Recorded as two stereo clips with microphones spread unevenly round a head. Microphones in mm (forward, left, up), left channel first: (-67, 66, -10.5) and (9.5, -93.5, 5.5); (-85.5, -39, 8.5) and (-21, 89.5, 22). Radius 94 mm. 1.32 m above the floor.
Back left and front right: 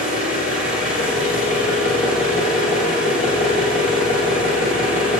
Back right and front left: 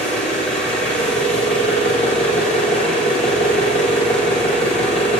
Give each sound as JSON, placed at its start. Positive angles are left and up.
{"t": 0.0, "sound": "an engine running", "azimuth_deg": 160, "distance_m": 6.0}